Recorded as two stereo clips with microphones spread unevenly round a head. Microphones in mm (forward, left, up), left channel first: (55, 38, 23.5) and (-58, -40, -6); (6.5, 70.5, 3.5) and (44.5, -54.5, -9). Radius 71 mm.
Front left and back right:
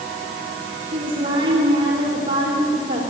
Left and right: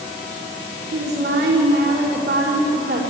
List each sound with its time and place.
0.9 s a woman speaking: 85° right, 3.5 m